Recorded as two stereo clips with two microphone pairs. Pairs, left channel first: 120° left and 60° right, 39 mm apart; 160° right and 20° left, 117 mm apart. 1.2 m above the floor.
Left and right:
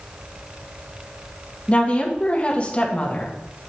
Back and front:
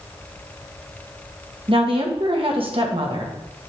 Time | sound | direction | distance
1.7 | a woman speaking | 60° left | 1.5 m